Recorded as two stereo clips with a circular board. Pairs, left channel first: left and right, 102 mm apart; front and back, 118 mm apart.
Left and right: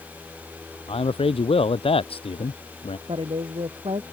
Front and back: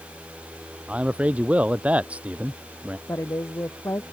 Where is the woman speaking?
65° right.